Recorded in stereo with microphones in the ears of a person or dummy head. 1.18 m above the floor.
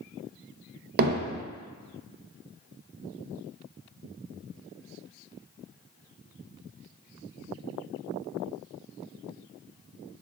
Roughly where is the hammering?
Right.